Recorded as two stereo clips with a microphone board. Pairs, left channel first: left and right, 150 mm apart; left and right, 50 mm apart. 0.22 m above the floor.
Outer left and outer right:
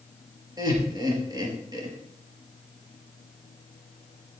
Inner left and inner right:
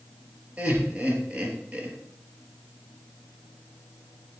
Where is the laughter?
25° right (ahead or behind), 3.5 m.